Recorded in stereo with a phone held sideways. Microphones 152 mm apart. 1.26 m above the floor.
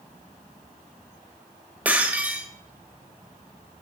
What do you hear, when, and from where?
1.9 s breaking glass: 10° right (ahead or behind), 2 m